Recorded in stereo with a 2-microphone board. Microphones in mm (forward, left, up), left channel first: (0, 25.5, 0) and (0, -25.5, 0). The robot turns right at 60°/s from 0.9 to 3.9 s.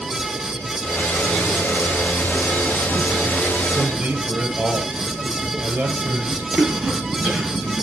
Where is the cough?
25° right (ahead or behind), 4.5 m.